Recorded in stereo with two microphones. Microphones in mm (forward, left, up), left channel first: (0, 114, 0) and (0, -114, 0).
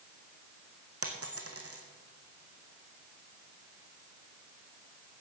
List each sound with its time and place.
1.0 s a dropped coin: 85° right, 1.8 m